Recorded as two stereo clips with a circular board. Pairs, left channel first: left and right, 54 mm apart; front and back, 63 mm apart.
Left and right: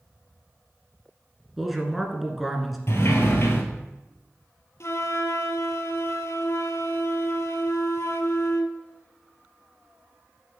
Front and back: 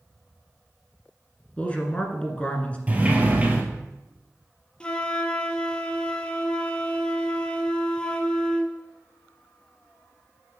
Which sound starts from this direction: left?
A flute, at 4.8 s.